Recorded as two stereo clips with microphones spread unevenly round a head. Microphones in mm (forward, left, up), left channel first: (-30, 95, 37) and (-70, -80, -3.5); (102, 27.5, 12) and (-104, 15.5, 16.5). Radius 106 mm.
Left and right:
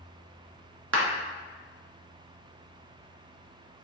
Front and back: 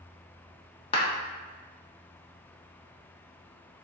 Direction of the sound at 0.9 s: 60° right.